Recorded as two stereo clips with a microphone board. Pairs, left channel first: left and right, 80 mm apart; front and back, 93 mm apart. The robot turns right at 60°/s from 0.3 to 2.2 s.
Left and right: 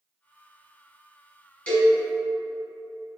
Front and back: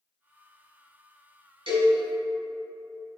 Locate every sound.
1.7 s a cowbell: 170° left, 1.8 m; by 1.9 s 175° right, 1.8 m